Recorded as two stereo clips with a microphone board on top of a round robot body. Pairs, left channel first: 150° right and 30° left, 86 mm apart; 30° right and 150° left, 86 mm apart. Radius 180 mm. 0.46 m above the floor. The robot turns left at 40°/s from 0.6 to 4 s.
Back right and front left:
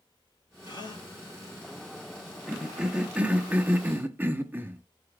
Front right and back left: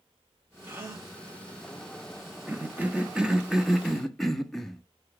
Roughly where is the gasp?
Behind right.